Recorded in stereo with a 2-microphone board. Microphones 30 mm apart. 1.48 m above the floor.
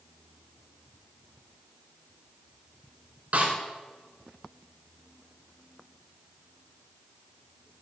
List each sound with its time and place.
3.3 s a snare drum: 50° right (ahead or behind), 4.5 m